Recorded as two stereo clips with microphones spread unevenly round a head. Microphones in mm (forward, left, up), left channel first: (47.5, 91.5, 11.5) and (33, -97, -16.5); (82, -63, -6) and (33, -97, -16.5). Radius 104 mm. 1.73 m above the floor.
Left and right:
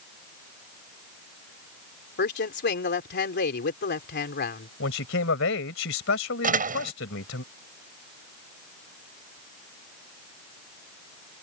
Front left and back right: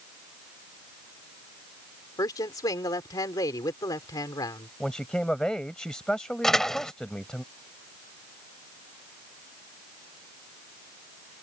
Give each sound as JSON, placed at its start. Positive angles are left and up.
{"t": 2.2, "sound": "a woman speaking", "azimuth_deg": 55}
{"t": 4.8, "sound": "a man speaking", "azimuth_deg": 120}
{"t": 6.4, "sound": "a door slam", "azimuth_deg": -45}